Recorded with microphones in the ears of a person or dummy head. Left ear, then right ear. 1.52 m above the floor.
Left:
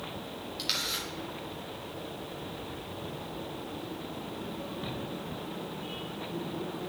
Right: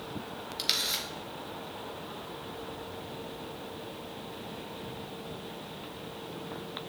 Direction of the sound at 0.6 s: 15° right (ahead or behind).